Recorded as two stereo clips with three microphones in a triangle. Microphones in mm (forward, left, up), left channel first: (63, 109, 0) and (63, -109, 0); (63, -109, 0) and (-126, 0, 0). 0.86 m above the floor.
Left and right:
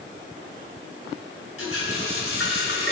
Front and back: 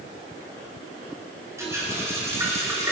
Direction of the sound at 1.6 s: 75° left.